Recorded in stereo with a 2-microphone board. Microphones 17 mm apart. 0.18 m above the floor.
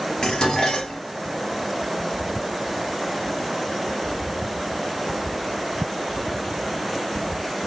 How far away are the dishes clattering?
About 2.5 m.